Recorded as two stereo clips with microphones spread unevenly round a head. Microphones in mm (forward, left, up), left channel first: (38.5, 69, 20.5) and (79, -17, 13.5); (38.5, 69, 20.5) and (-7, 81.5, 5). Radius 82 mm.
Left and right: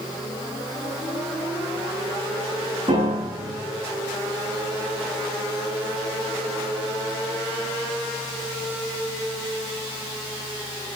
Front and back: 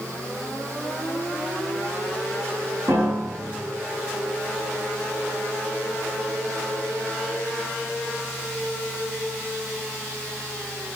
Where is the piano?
125° right, 6.5 m.